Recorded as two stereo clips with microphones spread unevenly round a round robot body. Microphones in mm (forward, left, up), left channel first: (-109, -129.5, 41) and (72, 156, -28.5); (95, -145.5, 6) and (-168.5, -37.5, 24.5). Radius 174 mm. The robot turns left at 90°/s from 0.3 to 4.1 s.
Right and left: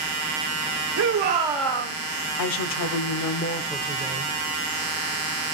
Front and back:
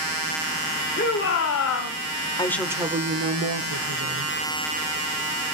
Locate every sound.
1.0 s a shout: 35° left, 1.4 m; by 2.0 s 55° right, 1.4 m
2.4 s a woman speaking: 85° right, 1.0 m; by 4.4 s 115° left, 1.0 m